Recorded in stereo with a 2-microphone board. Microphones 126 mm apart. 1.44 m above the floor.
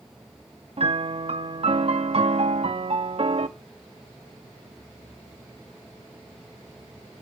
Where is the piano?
50° right (ahead or behind), 0.6 m.